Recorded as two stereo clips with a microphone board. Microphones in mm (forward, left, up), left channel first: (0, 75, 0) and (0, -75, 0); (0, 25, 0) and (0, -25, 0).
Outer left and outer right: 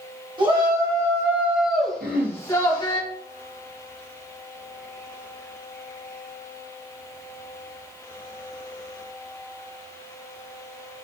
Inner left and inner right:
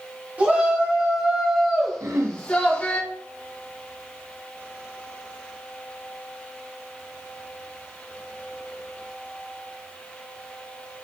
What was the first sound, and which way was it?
A shout, 30° right (ahead or behind).